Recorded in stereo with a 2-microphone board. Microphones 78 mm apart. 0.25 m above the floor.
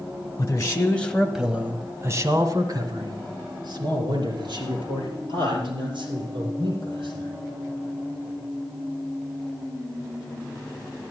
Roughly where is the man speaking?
Left.